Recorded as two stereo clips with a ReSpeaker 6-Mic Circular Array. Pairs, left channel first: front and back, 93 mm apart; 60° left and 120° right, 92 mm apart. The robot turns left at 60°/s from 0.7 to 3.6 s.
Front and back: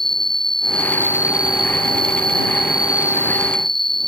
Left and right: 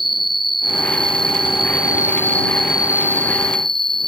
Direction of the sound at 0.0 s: 85° left.